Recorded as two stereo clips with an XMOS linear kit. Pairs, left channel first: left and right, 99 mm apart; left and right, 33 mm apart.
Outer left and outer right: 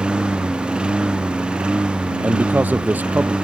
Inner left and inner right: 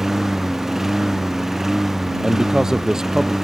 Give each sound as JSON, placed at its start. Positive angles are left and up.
{"t": 0.0, "sound": "a lawn mower", "side_deg": -10}
{"t": 2.2, "sound": "a man speaking", "side_deg": -15}